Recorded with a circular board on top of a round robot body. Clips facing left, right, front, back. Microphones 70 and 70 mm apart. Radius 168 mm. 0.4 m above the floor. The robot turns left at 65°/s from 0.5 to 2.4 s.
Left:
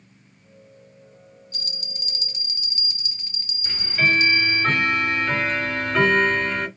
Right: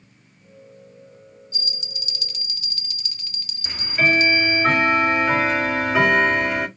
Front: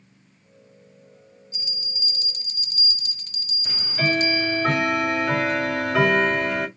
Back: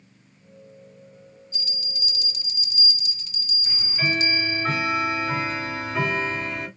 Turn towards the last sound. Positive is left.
turn(degrees=-10)